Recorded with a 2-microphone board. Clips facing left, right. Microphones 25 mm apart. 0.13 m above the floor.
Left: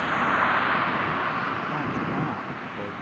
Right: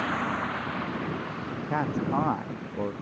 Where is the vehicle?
15° left (ahead or behind); by 3.0 s 60° left (ahead or behind).